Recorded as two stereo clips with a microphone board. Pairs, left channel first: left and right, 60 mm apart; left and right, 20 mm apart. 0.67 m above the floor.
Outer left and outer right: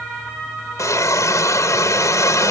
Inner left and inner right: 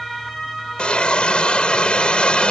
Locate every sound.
0.8 s a hiss: 60° left (ahead or behind)